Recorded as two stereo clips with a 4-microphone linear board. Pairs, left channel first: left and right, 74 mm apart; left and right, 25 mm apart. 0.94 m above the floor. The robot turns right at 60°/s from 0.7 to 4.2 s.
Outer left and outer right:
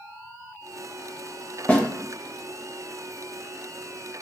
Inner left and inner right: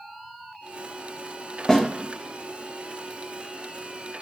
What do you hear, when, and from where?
1.7 s a snare drum: 20° left (ahead or behind), 0.6 m